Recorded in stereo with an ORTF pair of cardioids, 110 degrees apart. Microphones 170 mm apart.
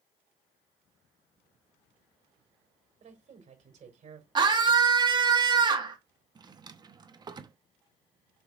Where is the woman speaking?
50° right, 4 m.